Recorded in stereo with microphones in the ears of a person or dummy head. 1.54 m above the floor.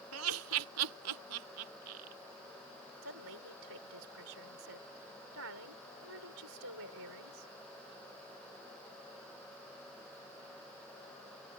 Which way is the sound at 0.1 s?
80° right.